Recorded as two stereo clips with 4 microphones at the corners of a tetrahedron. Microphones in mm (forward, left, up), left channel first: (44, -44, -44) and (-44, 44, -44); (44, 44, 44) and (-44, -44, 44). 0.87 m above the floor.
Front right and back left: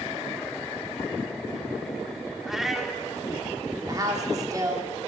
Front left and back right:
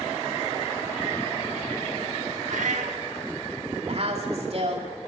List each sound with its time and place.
2.5 s a cat meowing: 135° right, 0.9 m
3.9 s a woman speaking: 165° right, 2.5 m